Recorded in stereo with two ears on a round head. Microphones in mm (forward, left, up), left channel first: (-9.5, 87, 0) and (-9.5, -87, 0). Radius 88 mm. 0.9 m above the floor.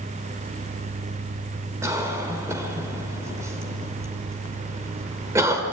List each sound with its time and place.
1.8 s a cough: 15° right (ahead or behind), 2.5 m